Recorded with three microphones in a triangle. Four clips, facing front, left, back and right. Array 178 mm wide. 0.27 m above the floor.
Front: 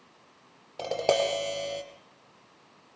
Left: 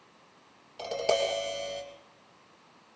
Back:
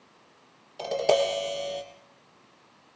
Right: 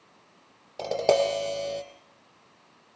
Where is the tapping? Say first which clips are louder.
Right 5 dB, back 2 dB; 60° right, 4 m.